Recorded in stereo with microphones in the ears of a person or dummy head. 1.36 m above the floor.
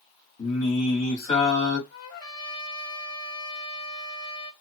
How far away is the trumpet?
About 1.0 m.